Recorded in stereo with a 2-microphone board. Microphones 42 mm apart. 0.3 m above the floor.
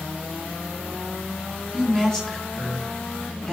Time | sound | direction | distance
1.7 | a woman speaking | 15° left (ahead or behind) | 3 m